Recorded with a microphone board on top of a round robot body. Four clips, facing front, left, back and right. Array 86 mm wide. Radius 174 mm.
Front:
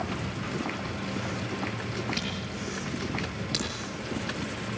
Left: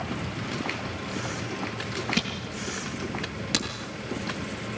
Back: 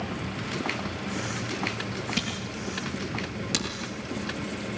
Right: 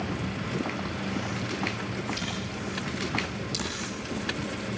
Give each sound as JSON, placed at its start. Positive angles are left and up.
{"t": 2.2, "sound": "a camera shutter", "azimuth_deg": 105, "distance_m": 7.0}